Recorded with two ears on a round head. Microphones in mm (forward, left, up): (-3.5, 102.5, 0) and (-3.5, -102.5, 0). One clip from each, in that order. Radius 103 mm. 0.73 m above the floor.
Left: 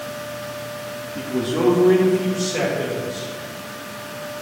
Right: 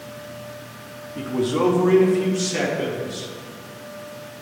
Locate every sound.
1.2 s a man speaking: 5° right (ahead or behind), 0.7 m; by 3.3 s 35° right (ahead or behind), 2.0 m